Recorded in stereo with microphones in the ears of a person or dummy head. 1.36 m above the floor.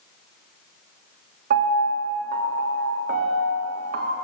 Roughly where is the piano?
Right.